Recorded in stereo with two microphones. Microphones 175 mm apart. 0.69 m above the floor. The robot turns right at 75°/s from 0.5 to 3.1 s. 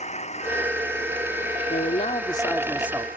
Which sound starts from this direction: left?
A man speaking, at 1.7 s.